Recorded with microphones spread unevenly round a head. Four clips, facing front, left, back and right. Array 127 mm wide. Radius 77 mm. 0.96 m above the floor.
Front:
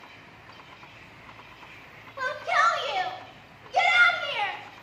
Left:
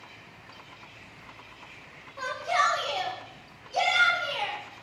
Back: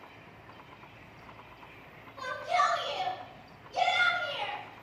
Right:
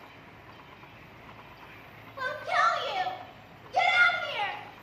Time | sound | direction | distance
2.2 | a shout | straight ahead | 4.5 m